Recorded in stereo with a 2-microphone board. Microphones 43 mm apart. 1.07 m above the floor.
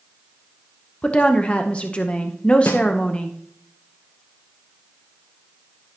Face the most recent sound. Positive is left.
turn(degrees=80)